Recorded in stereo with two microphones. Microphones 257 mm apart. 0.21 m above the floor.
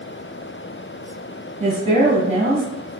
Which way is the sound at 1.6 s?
25° right (ahead or behind).